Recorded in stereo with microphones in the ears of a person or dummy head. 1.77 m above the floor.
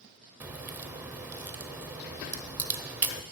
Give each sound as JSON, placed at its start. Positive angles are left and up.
{"t": 0.4, "sound": "a crack", "side_deg": -10, "distance_m": 0.8}